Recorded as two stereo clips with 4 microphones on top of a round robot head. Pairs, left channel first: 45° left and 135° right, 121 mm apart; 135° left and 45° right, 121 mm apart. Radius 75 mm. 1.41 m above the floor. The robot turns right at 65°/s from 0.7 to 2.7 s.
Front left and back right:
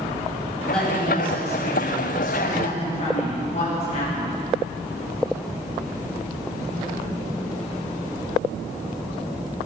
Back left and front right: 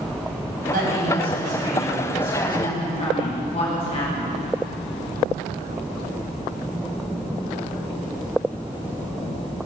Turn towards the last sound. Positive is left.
turn(degrees=90)